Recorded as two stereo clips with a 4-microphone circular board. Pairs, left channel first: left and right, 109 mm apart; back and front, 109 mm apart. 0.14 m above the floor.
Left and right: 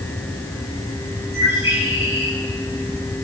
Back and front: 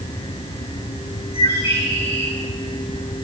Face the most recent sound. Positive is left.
turn(degrees=-160)